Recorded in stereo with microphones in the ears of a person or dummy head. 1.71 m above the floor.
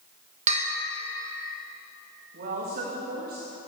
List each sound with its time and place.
0.5 s a bell: 45° right (ahead or behind), 1.4 m
2.3 s a woman speaking: 50° right (ahead or behind), 3 m